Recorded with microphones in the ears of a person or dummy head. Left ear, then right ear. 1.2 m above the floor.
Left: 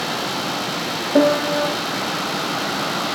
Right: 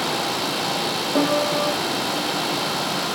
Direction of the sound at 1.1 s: 20° left (ahead or behind).